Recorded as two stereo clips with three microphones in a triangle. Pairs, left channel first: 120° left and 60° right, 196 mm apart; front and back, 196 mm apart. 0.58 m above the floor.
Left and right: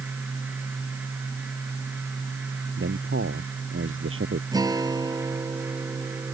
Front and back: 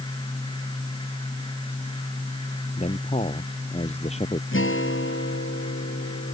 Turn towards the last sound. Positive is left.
turn(degrees=10)